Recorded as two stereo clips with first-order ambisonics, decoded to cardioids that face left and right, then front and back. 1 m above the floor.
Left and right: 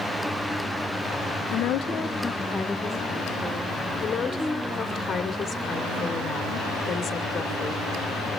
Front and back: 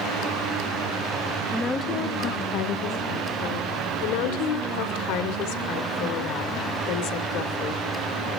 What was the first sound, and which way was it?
A woman speaking, 85° left.